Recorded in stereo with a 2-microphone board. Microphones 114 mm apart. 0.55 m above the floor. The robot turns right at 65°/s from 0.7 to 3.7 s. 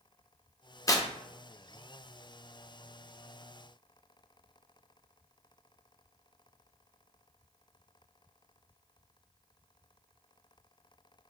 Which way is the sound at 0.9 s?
30° left (ahead or behind).